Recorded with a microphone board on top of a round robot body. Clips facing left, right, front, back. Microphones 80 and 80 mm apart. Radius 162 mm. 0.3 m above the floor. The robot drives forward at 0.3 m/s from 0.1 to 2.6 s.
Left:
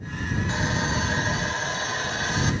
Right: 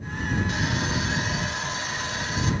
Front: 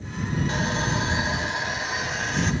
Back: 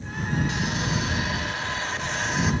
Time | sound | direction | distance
0.5 | sawing | 40° left | 0.9 m